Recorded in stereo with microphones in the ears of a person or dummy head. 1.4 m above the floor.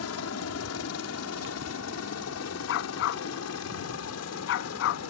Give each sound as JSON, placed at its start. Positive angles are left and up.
{"t": 0.0, "sound": "a helicopter", "side_deg": 70}
{"t": 2.7, "sound": "a dog barking", "side_deg": 65}